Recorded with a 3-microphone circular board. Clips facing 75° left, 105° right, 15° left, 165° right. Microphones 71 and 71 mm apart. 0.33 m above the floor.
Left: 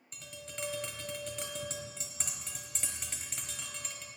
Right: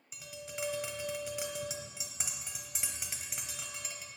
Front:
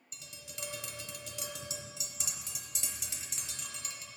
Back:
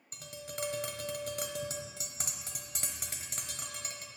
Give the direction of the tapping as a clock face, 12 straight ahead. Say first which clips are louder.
Right 2 dB, back 9 dB; 6 o'clock.